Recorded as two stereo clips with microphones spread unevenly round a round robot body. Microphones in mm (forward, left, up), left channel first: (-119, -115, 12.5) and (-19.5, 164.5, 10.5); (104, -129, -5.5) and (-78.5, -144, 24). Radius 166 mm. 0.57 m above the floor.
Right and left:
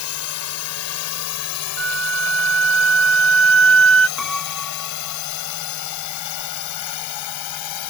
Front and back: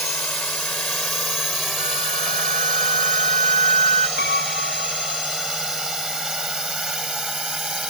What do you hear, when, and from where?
0.0 s a drone: 75° right; by 7.9 s 90° right
1.8 s a flute: 115° left
4.2 s a piano: 20° right